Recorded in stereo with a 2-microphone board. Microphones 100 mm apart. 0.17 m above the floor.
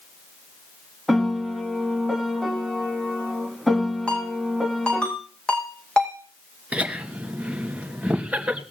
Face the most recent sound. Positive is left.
turn(degrees=-15)  # may be behind; listen again after turning